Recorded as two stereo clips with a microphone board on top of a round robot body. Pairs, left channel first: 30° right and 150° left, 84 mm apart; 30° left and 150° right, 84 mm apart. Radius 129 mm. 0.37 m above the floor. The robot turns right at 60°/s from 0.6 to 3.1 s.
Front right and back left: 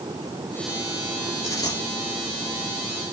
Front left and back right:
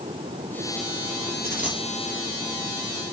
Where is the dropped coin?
90° right, 4.5 m; by 1.8 s 65° right, 4.5 m.